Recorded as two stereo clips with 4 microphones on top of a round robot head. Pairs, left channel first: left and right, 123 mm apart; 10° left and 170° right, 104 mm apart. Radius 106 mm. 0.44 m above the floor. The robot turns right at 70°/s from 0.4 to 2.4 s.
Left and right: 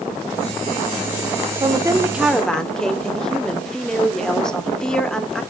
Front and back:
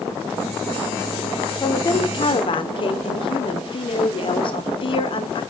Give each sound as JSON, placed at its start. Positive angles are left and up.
{"t": 1.6, "sound": "a woman speaking", "azimuth_deg": -50, "distance_m": 1.5}